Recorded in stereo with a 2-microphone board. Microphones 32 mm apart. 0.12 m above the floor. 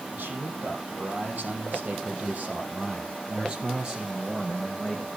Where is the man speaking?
70° right (ahead or behind), 4.5 m; by 5.2 s 10° right (ahead or behind), 4 m.